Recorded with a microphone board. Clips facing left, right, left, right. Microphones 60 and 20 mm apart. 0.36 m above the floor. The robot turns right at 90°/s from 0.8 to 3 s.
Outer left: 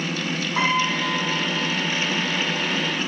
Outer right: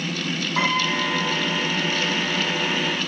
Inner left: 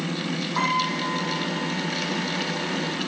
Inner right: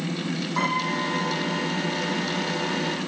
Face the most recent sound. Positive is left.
turn(degrees=25)